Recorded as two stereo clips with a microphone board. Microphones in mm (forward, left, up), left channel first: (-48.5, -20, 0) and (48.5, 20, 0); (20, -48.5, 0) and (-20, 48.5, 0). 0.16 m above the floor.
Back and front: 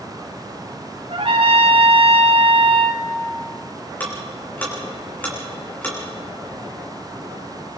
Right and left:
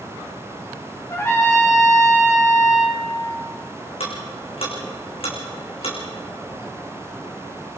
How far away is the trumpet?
About 3.5 m.